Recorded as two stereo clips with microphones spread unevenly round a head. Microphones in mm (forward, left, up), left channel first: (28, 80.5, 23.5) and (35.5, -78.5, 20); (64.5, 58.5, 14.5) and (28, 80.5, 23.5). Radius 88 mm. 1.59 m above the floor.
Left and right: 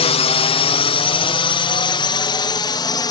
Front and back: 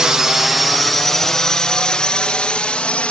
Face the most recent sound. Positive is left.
turn(degrees=30)